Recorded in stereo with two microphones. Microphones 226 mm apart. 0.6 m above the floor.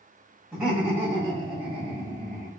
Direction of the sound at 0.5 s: 5° right (ahead or behind).